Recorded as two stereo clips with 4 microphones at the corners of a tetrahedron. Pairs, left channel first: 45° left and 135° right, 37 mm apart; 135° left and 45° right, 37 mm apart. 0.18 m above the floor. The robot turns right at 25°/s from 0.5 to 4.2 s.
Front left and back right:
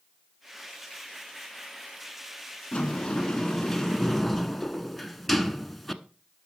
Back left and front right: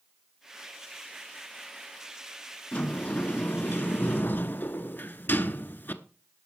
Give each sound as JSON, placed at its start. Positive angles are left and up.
{"t": 2.7, "sound": "a sliding door", "azimuth_deg": 95, "distance_m": 1.0}